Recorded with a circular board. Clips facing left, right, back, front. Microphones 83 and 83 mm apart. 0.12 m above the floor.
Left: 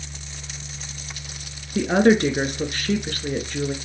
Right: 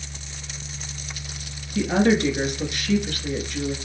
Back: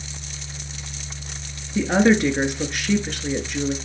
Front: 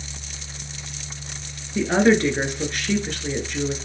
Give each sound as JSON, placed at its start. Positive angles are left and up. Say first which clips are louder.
{"t": 1.8, "sound": "a woman speaking", "louder": "left 3 dB, even", "azimuth_deg": 95, "distance_m": 1.5}